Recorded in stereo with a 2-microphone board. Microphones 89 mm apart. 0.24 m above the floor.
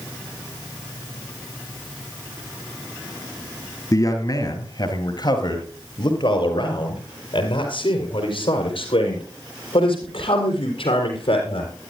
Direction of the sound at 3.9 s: 40° left (ahead or behind).